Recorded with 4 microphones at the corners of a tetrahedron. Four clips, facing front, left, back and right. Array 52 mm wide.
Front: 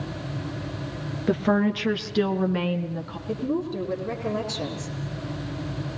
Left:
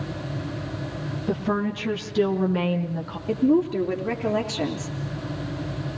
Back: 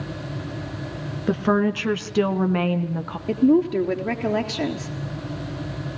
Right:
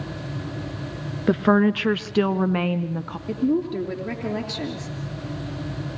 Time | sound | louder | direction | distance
1.3 | a woman speaking | right 8 dB, back 2 dB | 95° right | 2 m
3.3 | a woman speaking | left 3 dB, back 10 dB | 175° left | 3.5 m